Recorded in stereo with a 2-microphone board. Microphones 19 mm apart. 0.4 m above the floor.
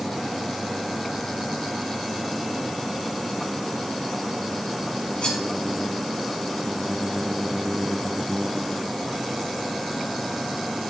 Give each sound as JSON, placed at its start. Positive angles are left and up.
{"t": 5.2, "sound": "cutlery clinking", "side_deg": 80, "distance_m": 5.5}